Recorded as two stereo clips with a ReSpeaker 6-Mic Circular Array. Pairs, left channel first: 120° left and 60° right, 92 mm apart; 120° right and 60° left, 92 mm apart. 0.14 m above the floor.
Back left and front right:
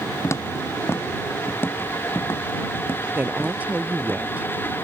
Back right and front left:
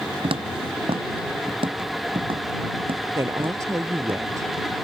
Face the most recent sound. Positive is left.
turn(degrees=10)